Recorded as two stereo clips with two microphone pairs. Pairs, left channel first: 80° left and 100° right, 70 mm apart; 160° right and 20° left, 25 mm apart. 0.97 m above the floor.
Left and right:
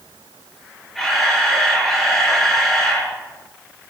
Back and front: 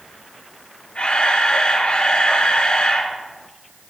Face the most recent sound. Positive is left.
turn(degrees=165)